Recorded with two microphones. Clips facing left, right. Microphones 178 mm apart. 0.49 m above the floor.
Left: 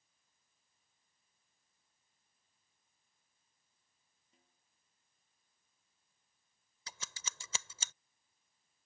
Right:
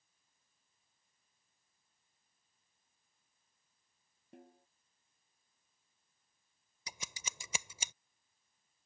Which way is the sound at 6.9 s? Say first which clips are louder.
Right 1 dB; 15° right (ahead or behind).